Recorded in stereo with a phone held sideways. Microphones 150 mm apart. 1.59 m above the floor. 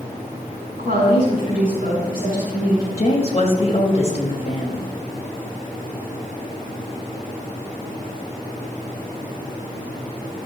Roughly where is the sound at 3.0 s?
Left.